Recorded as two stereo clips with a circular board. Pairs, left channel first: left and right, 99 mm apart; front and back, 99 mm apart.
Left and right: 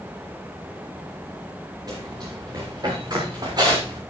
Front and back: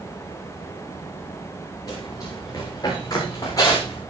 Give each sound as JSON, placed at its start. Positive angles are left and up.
{"t": 1.9, "sound": "running footsteps", "azimuth_deg": -45, "distance_m": 8.0}